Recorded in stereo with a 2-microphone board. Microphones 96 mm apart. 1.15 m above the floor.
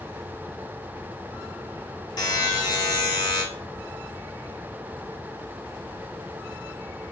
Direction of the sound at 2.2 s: 50° left (ahead or behind).